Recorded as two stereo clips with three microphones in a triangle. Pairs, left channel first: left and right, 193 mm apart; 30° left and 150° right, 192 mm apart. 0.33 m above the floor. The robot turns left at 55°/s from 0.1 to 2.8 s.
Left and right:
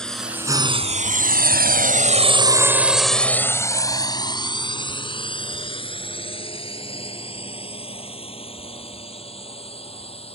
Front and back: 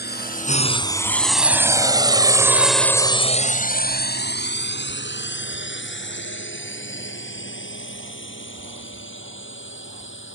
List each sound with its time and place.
0.0 s a drone: 5° left; by 10.3 s 30° left